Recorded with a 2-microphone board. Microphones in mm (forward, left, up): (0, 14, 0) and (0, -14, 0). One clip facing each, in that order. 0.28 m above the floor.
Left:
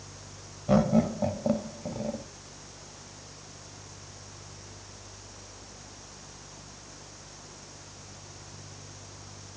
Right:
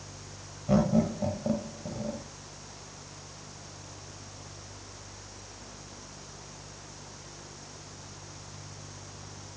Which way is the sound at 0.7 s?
20° left (ahead or behind).